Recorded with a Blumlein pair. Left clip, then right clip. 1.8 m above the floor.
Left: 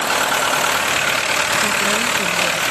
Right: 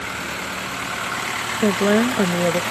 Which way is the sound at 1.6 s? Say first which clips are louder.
Left 1 dB; 60° right.